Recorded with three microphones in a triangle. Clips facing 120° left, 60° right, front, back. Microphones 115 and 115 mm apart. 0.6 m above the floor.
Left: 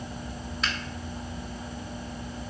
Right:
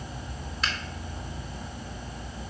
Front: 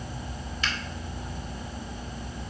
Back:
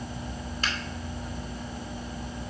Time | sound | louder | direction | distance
0.6 | a finger snap | even, even | 150° right | 0.9 m